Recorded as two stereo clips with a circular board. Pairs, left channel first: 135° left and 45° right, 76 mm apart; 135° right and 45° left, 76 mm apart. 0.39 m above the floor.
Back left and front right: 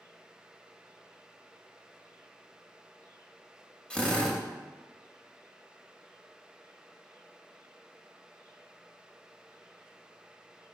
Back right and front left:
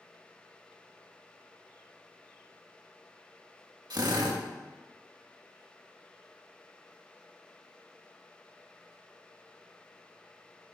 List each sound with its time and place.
3.9 s a drill: 60° left, 0.7 m